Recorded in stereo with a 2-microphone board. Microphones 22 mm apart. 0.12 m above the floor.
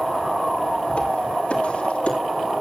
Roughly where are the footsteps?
Left.